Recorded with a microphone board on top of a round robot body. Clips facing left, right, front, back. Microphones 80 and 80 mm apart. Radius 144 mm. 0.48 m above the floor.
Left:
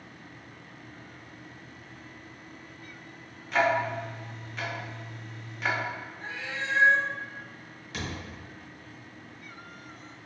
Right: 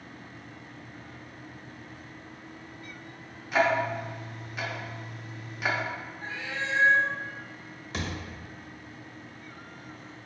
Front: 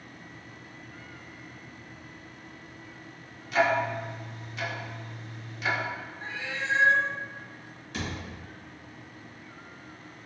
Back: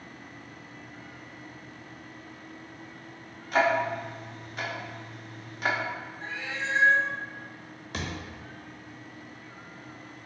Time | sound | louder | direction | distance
3.5 | ticking | even, back 1 dB | 170° right | 0.8 m
6.2 | a cat meowing | right 1 dB, even | 80° left | 1.3 m
7.9 | a thud | right 2 dB, even | 150° right | 0.9 m